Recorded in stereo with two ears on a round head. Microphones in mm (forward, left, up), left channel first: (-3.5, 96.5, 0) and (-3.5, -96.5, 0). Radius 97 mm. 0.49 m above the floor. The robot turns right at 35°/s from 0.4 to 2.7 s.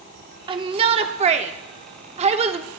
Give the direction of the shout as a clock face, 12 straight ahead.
4 o'clock.